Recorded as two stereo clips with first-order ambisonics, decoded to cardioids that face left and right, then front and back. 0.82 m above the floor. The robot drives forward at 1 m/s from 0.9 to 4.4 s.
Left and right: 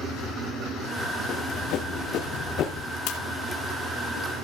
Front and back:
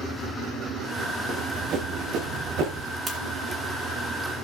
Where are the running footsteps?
125° left, 4 m; by 3.0 s 140° left, 3.5 m.